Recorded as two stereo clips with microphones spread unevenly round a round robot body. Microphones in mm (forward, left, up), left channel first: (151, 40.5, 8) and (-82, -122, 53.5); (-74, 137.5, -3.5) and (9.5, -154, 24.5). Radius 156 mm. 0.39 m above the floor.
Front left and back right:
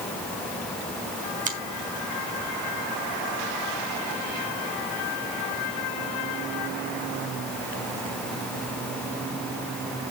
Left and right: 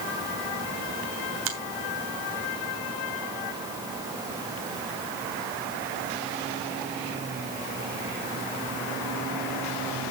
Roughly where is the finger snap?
Right.